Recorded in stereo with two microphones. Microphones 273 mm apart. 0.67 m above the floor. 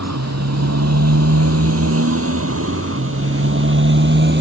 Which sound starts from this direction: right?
A motorcycle, at 0.0 s.